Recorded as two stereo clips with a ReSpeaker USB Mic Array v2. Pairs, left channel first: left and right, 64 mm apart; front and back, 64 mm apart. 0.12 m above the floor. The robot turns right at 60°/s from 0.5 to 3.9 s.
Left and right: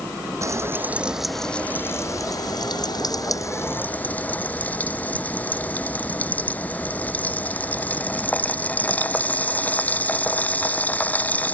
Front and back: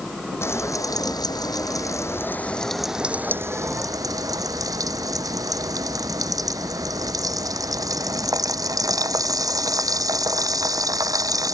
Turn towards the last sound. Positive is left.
turn(degrees=155)